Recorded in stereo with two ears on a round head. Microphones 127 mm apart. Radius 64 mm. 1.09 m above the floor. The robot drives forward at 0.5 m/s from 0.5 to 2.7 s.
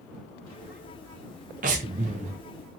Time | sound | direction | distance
1.6 | breathing | 60° right (ahead or behind) | 0.8 m